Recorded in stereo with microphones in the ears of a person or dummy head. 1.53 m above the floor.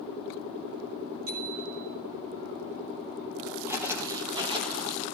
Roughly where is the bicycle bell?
Right.